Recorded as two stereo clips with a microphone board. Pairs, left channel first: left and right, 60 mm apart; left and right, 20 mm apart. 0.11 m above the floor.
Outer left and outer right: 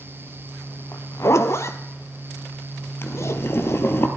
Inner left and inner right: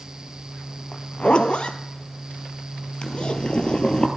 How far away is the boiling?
About 1.1 m.